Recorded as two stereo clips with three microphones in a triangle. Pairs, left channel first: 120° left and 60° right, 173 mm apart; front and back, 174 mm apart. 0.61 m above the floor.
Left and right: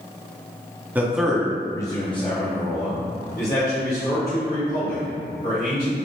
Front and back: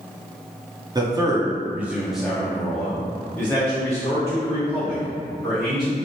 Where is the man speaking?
135° right, 0.7 m; by 6.0 s 70° left, 2.5 m.